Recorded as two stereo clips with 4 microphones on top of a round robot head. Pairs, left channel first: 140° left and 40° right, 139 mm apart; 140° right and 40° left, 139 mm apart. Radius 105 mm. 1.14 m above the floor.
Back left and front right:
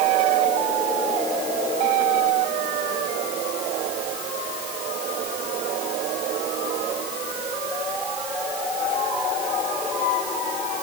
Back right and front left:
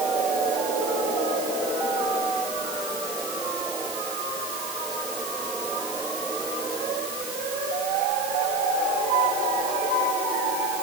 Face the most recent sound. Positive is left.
No sound to turn to.